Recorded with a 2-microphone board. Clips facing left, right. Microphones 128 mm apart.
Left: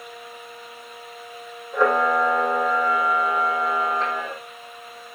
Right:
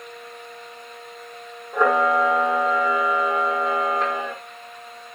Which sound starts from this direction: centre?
A camera shutter, at 1.7 s.